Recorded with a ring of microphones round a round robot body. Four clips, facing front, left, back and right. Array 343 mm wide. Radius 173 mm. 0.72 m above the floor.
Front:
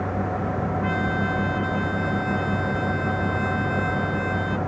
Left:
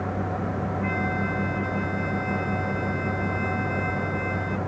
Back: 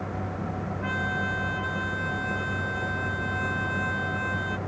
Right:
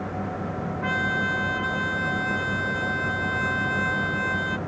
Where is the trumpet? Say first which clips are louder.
Right 4 dB, front 2 dB; 90° right.